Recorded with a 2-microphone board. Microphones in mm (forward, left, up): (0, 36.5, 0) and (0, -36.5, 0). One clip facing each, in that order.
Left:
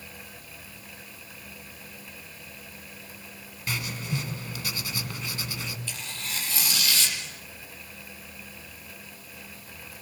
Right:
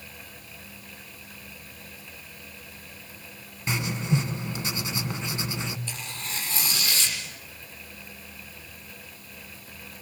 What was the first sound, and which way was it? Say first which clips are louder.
Writing: right 5 dB; 25° right (ahead or behind).